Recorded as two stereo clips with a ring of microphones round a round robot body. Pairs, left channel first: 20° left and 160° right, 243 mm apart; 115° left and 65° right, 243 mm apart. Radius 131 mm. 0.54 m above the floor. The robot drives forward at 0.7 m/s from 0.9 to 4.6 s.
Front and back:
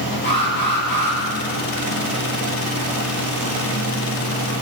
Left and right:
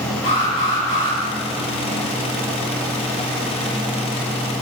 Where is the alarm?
75° left, 9 m.